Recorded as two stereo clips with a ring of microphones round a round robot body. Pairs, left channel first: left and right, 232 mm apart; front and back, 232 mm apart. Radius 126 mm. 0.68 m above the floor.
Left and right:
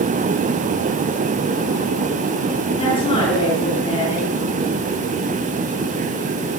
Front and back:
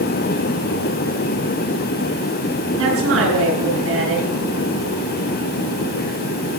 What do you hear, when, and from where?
2.8 s a woman speaking: 160° left, 8.5 m